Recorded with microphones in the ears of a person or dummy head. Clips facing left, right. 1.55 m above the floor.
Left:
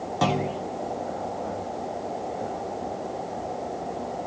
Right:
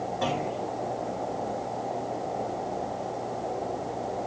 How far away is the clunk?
About 3 m.